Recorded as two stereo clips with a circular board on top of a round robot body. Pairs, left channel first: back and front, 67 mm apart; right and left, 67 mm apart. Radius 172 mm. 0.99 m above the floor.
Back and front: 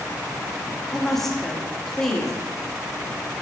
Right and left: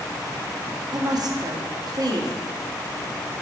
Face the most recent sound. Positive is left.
turn(degrees=95)